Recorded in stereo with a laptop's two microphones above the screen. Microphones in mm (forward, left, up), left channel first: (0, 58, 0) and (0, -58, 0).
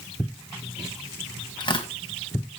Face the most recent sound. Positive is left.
turn(degrees=40)  # may be behind; listen again after turning